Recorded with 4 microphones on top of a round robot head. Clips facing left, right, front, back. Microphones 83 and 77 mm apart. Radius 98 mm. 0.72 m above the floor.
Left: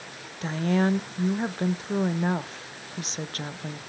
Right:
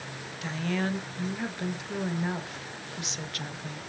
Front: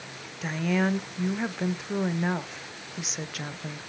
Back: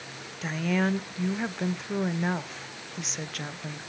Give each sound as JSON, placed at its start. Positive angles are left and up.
{"t": 0.4, "sound": "a woman speaking", "azimuth_deg": 85, "distance_m": 0.5}